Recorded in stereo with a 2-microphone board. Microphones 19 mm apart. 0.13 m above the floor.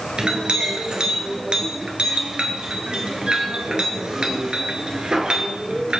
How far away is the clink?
About 1.7 m.